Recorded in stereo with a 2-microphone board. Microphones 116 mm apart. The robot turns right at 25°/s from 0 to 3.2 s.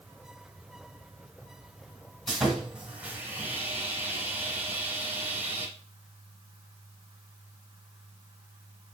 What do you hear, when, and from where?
2.3 s sawing: centre (ahead or behind), 1.4 m; by 5.7 s 15° right (ahead or behind), 1.4 m